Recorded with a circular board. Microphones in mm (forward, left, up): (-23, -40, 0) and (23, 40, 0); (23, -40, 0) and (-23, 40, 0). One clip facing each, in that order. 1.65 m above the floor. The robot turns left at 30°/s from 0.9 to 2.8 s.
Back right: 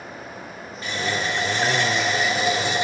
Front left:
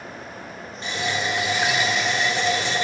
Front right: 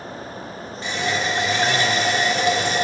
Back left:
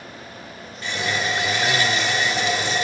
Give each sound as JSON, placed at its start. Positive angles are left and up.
{"t": 0.8, "sound": "a running tap", "azimuth_deg": 5, "distance_m": 1.3}